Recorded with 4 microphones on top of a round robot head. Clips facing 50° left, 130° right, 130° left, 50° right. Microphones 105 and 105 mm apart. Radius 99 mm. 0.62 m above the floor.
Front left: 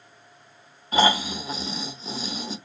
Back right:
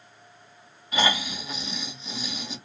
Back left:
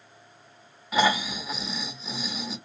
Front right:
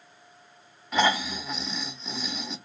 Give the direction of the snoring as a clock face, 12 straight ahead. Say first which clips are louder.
Front left 5 dB, back left 1 dB; 10 o'clock.